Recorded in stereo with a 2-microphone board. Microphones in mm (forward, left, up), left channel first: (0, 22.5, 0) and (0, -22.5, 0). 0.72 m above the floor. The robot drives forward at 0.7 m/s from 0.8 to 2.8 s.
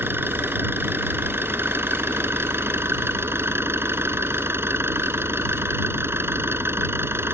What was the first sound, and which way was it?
An engine running, 55° right (ahead or behind).